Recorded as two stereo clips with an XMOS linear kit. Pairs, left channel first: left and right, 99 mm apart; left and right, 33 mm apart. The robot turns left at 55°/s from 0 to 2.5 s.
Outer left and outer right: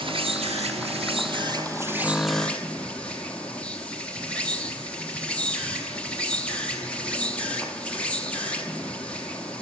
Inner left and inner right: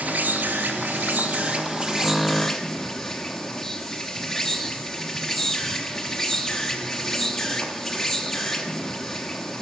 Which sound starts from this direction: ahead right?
An insect, at 0.0 s.